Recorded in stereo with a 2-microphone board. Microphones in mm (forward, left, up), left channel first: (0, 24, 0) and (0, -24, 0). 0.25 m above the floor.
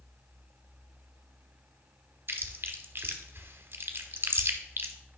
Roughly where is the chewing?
Right.